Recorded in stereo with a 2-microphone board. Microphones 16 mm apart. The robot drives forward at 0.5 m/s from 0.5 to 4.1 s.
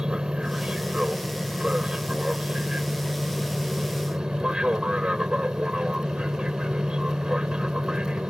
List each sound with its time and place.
0.0 s an aircraft: 60° right (ahead or behind); by 8.3 s 65° right (ahead or behind)